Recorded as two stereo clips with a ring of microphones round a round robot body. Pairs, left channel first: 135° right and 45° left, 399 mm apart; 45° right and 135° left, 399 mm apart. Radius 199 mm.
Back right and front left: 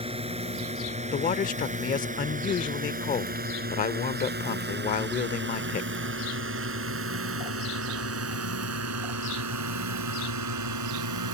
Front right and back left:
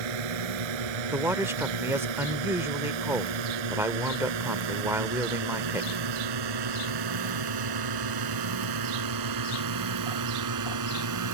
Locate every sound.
0.0 s a drone: 120° left; by 11.3 s 90° left
1.1 s a man speaking: 150° right